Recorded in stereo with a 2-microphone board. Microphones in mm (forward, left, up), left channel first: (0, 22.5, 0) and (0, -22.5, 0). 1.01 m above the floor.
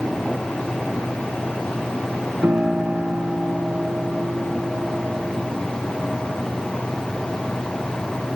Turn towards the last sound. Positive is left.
turn(degrees=-50)  # may be behind; listen again after turning